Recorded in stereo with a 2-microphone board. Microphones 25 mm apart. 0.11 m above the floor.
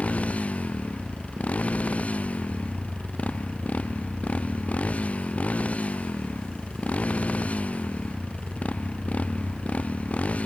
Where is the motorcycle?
55° left (ahead or behind).